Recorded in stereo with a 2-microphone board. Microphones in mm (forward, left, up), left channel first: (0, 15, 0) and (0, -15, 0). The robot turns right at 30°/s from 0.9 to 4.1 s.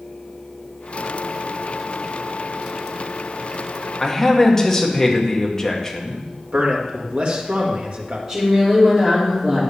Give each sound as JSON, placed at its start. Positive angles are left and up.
{"t": 4.0, "sound": "a man speaking", "side_deg": 10, "distance_m": 1.5}
{"t": 6.5, "sound": "a man speaking", "side_deg": -55, "distance_m": 2.0}
{"t": 8.3, "sound": "a woman speaking", "side_deg": -20, "distance_m": 3.0}